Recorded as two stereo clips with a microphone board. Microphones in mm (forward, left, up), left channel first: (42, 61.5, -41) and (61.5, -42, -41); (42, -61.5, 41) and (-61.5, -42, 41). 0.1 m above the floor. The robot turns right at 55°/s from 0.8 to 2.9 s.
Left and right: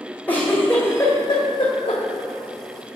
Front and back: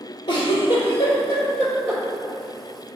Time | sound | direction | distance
0.3 | a giggle | 30° left | 1.9 m